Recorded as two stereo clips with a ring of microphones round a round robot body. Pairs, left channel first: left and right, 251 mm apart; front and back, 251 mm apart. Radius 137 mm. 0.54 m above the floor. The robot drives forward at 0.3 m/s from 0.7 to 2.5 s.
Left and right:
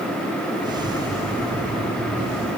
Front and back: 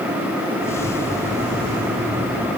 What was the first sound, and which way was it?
Only background noise.